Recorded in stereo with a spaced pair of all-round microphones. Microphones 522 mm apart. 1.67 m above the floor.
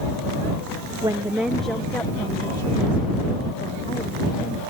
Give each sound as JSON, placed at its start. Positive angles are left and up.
{"t": 1.0, "sound": "a woman speaking", "side_deg": -10}